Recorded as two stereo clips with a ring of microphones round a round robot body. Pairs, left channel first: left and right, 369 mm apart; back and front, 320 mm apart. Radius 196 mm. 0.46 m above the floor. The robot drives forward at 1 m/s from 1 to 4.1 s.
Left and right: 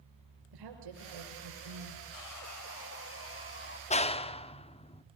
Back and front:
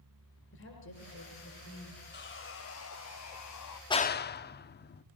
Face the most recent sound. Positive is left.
turn(degrees=150)